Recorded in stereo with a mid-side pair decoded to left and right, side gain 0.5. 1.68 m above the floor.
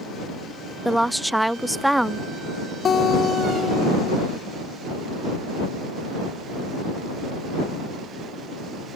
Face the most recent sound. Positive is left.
turn(degrees=50)